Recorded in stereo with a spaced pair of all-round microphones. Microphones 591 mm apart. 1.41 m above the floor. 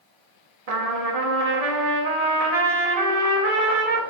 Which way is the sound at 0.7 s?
80° right.